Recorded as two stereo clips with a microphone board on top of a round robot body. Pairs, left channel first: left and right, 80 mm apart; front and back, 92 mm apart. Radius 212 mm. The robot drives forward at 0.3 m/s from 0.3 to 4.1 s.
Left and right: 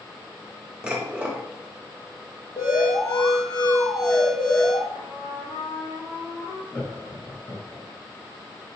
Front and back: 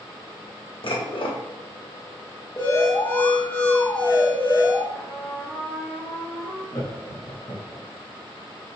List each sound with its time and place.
0.8 s dishes clattering: 15° right, 1.3 m
2.6 s an alarm: 55° left, 1.6 m; by 4.8 s 70° left, 1.5 m
4.9 s a trumpet: 75° left, 2.5 m
6.7 s laughter: 35° left, 1.9 m